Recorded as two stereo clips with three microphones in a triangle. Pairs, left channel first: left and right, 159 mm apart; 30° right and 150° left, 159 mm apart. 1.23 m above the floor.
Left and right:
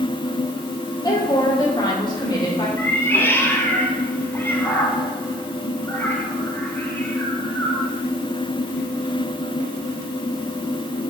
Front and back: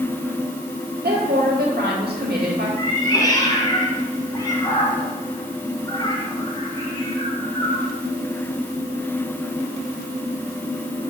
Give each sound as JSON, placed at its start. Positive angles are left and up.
{"t": 1.0, "sound": "a woman speaking", "azimuth_deg": 155, "distance_m": 2.0}
{"t": 2.8, "sound": "a cat meowing", "azimuth_deg": 20, "distance_m": 1.4}